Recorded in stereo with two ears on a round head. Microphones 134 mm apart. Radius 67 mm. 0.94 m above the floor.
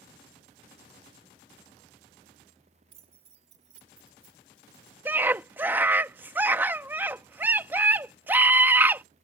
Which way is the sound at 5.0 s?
15° right (ahead or behind).